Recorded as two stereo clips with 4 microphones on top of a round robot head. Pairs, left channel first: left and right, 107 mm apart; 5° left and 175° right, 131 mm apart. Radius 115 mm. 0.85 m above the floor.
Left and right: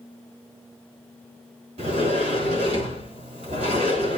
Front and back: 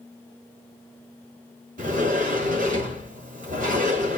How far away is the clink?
I don't hear a clink.